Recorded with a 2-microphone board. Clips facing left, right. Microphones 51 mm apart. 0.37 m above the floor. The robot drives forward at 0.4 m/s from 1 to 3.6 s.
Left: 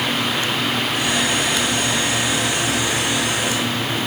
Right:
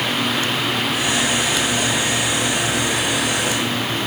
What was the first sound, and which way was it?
Only background noise.